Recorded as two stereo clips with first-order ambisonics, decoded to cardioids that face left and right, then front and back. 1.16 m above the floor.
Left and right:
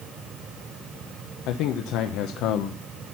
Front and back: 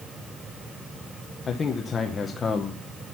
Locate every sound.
1.5 s a man speaking: 70° left, 0.9 m